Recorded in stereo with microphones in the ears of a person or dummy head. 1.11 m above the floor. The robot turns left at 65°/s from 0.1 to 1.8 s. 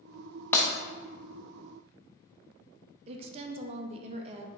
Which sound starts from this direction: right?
A woman speaking, at 3.1 s.